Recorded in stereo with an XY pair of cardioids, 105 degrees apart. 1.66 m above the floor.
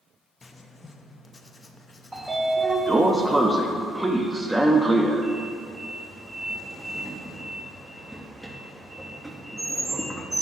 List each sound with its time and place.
0.4 s writing: 30° left, 0.6 m
2.1 s a sliding door: 15° right, 0.7 m